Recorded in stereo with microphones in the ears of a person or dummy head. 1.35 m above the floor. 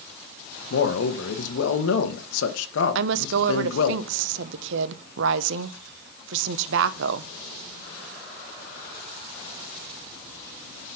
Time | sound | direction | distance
0.7 | a man speaking | 80° left | 1.2 m
3.0 | a woman speaking | 70° right (ahead or behind) | 0.7 m